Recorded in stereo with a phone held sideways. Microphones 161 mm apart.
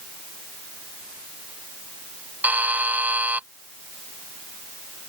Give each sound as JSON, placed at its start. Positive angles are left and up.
{"t": 2.4, "sound": "a buzzer", "side_deg": -10}